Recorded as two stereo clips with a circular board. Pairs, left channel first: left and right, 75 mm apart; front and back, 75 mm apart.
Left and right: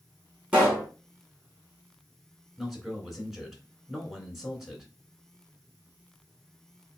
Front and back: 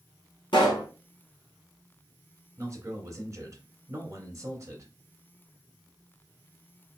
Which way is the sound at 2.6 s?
175° right.